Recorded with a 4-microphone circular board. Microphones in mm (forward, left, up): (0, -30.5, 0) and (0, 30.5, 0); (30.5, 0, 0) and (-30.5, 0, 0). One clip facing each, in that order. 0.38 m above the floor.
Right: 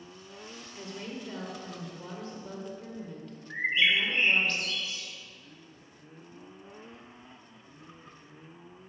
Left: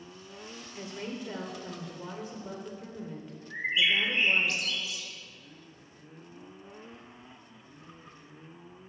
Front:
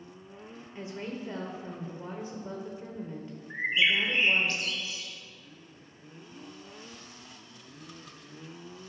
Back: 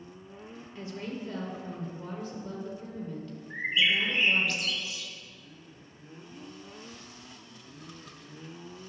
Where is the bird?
50° right, 1.4 m.